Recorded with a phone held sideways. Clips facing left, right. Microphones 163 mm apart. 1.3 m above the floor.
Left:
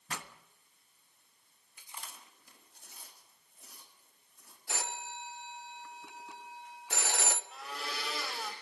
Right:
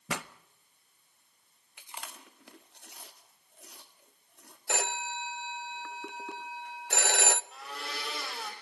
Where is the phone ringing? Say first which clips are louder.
Right 7 dB; 70° right (ahead or behind), 0.5 m.